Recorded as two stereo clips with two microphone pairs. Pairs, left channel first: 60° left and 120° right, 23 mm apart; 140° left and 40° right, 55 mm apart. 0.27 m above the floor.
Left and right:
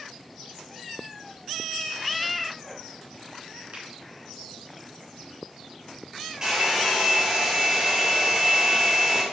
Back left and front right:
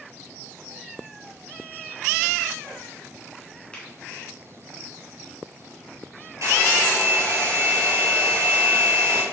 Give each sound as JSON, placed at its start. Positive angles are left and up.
{"t": 3.7, "sound": "a finger snap", "azimuth_deg": -150, "distance_m": 3.0}
{"t": 6.4, "sound": "a hair dryer", "azimuth_deg": -65, "distance_m": 3.5}